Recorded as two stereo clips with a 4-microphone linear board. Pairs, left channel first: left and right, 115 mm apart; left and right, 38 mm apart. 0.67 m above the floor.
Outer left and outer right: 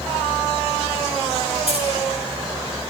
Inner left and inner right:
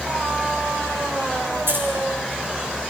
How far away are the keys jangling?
About 6 m.